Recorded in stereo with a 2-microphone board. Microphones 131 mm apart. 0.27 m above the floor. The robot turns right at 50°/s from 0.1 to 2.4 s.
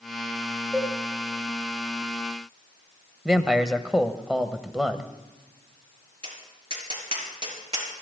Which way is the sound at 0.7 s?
5° right (ahead or behind).